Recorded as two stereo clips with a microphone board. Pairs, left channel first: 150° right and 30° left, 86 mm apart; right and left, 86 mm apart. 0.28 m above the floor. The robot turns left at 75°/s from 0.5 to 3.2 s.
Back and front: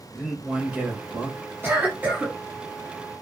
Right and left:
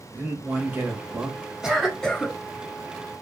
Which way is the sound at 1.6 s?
15° left.